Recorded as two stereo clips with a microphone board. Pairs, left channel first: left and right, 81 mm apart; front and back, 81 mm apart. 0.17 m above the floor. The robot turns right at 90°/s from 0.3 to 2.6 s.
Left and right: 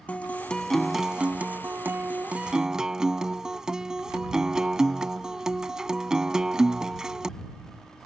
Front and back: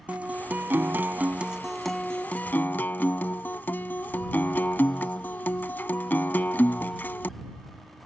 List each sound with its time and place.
0.1 s a guitar: 135° left; by 7.3 s 20° right